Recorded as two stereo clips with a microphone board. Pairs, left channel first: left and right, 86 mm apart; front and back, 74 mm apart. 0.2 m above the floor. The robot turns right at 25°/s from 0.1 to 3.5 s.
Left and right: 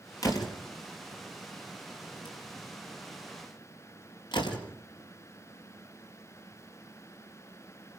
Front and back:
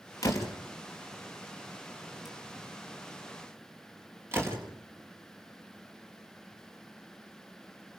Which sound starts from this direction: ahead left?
A door slam, at 0.2 s.